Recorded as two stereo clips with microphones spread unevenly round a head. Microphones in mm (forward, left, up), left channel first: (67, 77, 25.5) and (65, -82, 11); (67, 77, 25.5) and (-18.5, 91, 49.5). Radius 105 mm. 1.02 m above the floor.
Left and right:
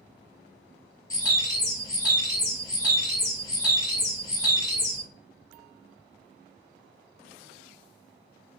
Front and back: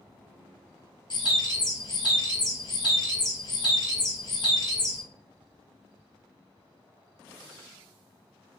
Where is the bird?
30° left, 1.4 m.